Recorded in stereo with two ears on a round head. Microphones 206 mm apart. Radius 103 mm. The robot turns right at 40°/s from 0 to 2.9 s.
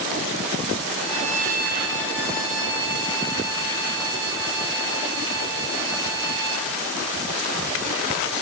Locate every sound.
1.0 s a violin: 160° right, 6 m; by 6.7 s 85° right, 6 m